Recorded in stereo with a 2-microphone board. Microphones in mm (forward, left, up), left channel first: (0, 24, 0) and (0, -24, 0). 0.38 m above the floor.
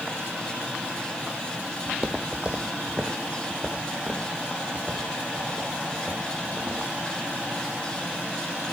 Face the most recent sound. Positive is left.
turn(degrees=-20)  # may be behind; listen again after turning